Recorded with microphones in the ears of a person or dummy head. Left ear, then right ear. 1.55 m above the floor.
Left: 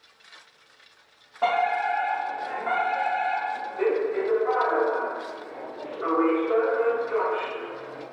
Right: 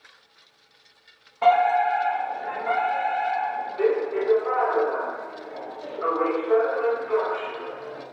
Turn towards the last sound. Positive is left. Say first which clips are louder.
# right 5 dB
turn(degrees=-30)  # may be behind; listen again after turning